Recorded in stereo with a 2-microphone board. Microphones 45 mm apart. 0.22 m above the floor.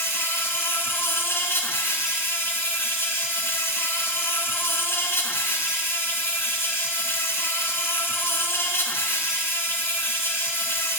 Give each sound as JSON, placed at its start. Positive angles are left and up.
{"t": 0.0, "sound": "an insect", "side_deg": 65, "distance_m": 1.3}